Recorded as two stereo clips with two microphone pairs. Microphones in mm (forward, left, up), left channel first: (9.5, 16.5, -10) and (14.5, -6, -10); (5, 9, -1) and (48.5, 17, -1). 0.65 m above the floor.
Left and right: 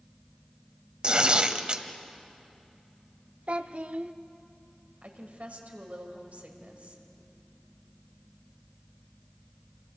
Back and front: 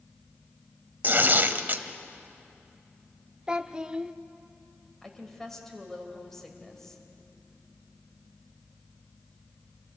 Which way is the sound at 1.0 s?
30° right.